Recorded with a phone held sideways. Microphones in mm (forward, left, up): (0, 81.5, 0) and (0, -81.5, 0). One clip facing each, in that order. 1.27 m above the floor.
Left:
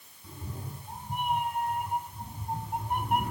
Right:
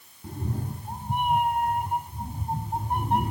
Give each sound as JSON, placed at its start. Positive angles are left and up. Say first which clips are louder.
{"t": 0.2, "sound": "a cat meowing", "louder": "right 9 dB", "side_deg": -65, "distance_m": 2.5}